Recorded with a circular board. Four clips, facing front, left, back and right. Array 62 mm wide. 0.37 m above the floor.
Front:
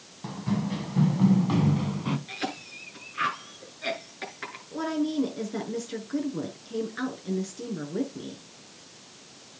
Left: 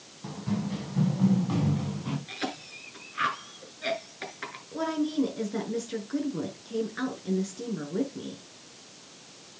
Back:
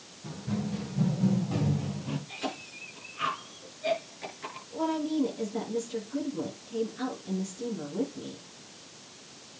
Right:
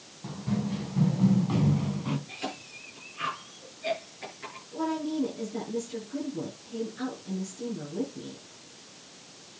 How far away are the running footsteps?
About 5.5 m.